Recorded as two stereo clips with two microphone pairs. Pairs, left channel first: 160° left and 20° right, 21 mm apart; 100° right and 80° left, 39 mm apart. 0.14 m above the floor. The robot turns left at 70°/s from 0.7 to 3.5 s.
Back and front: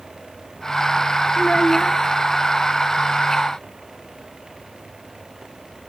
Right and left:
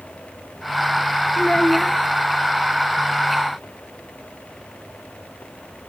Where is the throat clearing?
No throat clearing in this recording.